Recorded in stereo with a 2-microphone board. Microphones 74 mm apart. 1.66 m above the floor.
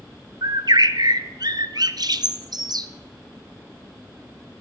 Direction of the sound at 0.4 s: 60° right (ahead or behind).